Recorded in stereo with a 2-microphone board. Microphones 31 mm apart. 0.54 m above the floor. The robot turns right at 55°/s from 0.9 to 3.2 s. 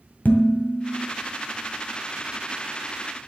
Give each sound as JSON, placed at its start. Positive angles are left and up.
{"t": 0.2, "sound": "dishes clattering", "side_deg": 70, "distance_m": 1.9}